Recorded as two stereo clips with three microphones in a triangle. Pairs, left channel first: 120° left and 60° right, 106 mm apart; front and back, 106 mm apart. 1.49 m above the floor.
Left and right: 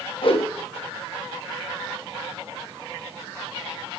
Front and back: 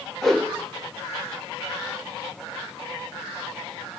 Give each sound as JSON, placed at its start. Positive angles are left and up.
{"t": 0.2, "sound": "a whoosh", "azimuth_deg": 85, "distance_m": 1.3}